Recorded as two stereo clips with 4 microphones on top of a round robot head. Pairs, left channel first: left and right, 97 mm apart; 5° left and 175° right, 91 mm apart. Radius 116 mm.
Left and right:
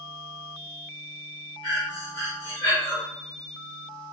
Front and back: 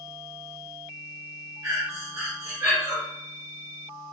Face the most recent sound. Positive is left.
turn(degrees=130)